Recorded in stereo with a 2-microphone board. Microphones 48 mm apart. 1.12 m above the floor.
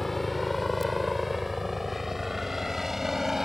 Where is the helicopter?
5° left (ahead or behind); by 3.5 s 5° right (ahead or behind).